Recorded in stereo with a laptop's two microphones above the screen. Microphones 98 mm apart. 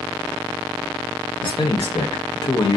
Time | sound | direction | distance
1.4 | a man speaking | 55° left (ahead or behind) | 0.6 m